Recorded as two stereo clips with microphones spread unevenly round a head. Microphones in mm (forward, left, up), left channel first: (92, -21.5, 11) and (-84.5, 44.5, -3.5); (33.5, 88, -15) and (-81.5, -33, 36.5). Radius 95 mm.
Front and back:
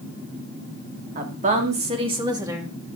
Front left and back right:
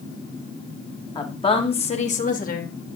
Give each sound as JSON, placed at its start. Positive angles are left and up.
{"t": 1.1, "sound": "a woman speaking", "azimuth_deg": 115, "distance_m": 3.5}